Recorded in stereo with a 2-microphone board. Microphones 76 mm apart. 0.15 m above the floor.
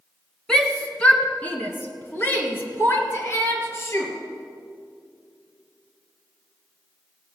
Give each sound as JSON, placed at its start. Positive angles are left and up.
{"t": 0.5, "sound": "a shout", "side_deg": 10, "distance_m": 1.6}